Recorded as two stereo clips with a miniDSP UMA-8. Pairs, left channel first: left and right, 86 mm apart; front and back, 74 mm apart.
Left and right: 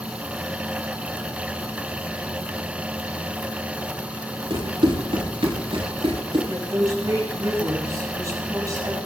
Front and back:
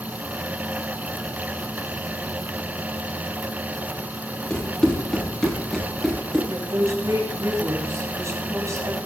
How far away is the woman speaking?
About 7.5 m.